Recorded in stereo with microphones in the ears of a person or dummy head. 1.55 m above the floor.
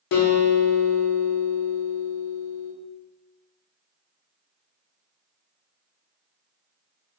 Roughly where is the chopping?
No chopping in this recording.